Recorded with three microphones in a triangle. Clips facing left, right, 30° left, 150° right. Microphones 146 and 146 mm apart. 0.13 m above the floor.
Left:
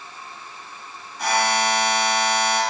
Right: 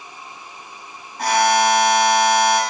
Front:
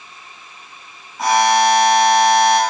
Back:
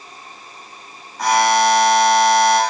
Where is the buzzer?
55° right, 3.5 m.